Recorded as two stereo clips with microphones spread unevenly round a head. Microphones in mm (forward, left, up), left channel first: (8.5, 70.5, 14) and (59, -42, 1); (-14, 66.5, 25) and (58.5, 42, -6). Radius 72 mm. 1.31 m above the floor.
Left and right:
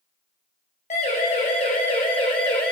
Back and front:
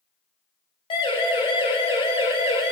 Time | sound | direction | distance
0.9 | a siren | 165° left | 9 m